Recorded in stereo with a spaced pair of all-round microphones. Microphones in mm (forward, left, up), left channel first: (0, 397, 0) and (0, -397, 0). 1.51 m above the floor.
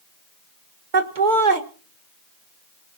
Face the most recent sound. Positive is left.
turn(degrees=-70)  # may be behind; listen again after turning